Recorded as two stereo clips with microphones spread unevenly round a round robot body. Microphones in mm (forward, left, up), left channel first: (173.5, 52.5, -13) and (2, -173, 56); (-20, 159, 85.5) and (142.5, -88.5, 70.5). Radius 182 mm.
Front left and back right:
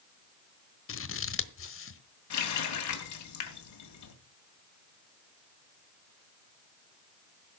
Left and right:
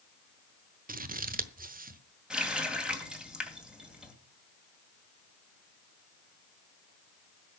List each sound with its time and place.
0.9 s scissors: 5° left, 1.3 m
2.3 s a running tap: 30° left, 2.5 m